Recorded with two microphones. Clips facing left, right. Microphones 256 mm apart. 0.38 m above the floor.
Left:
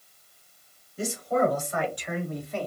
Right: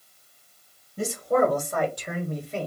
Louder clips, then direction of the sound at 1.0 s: Right 3 dB; 60° right (ahead or behind).